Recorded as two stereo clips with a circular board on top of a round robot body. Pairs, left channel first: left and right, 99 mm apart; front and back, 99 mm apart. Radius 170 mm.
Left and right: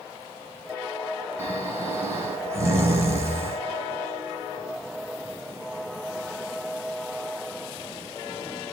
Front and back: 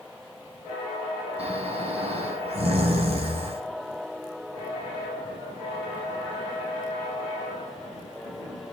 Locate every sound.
1.4 s snoring: 155° right, 5 m